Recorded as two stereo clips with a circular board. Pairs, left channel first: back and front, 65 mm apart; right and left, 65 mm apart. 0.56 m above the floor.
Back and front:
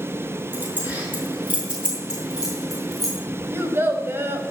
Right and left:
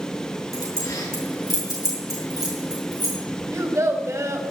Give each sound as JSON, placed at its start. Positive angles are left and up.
{"t": 0.5, "sound": "keys jangling", "azimuth_deg": -65, "distance_m": 6.0}
{"t": 3.5, "sound": "a child speaking", "azimuth_deg": 50, "distance_m": 2.5}